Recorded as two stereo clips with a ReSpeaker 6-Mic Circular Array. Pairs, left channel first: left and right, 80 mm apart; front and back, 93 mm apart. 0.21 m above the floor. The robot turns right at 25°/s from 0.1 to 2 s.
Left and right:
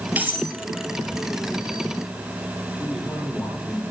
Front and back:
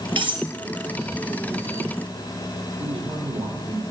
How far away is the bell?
I don't hear a bell.